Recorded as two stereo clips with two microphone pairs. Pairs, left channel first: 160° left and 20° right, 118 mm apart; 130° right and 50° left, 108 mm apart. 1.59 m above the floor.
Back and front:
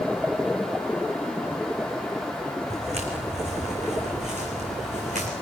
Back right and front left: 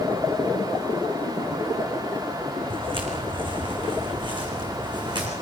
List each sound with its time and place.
2.7 s footsteps: 5° left, 6 m; by 5.3 s straight ahead, 7 m